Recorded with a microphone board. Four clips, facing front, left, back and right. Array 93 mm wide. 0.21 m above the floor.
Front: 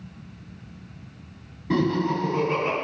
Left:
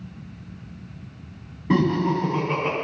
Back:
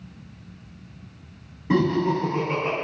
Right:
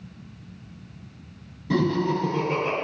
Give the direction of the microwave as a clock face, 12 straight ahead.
No microwave in this recording.